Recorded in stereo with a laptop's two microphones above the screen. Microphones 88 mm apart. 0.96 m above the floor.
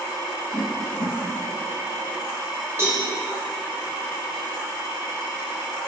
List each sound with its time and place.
0.5 s a whoosh: 25° left (ahead or behind), 0.8 m
2.8 s a cowbell: 25° right (ahead or behind), 2.0 m